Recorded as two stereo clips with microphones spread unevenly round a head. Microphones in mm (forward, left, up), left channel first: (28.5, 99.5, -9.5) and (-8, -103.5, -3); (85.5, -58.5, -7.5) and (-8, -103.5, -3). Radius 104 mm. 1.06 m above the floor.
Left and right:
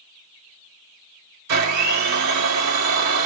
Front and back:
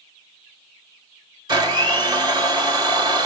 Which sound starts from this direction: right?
A blender, at 1.5 s.